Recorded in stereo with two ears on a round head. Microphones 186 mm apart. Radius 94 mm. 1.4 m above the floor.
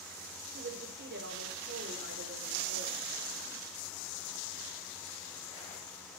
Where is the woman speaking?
60° right (ahead or behind), 5 m.